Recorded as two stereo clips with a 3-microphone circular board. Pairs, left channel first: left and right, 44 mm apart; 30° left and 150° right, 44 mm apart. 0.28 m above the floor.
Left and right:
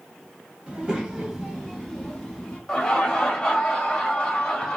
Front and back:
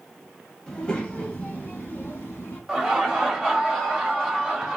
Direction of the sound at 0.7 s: 40° right.